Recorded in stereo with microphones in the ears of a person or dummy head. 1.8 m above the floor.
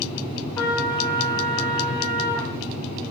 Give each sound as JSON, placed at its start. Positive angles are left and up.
{"t": 0.6, "sound": "a trumpet", "side_deg": 20, "distance_m": 1.3}